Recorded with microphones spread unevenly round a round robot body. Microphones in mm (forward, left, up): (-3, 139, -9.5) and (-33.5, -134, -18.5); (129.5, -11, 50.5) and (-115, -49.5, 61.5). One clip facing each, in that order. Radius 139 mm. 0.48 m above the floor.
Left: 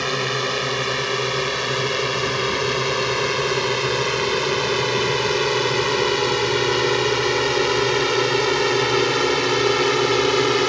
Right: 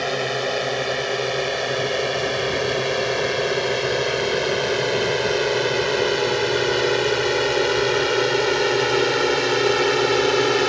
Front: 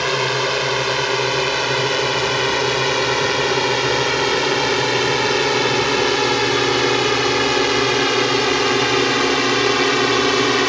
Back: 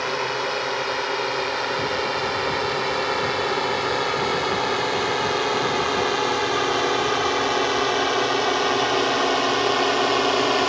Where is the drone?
15° left; by 10.7 s 10° left.